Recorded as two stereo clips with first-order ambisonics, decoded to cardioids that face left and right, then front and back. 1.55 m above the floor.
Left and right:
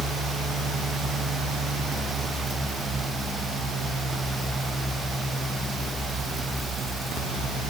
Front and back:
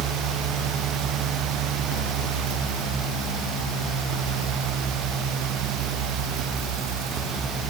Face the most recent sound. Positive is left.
No sound to turn to.